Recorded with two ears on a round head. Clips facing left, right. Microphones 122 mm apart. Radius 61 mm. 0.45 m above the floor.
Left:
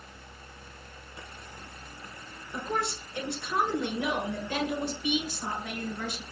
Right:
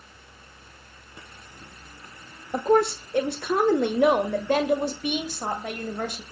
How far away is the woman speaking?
About 1.3 m.